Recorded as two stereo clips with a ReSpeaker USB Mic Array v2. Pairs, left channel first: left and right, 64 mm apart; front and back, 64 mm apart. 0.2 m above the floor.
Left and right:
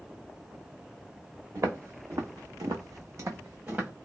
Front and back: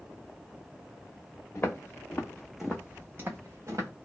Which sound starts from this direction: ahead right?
Footsteps, at 1.6 s.